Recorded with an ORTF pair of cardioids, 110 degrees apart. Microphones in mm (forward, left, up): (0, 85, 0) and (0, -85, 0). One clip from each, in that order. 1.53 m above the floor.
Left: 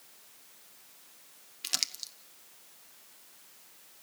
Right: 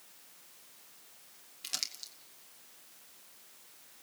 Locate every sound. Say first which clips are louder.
1.6 s crumpling: left 5 dB; 25° left, 1.0 m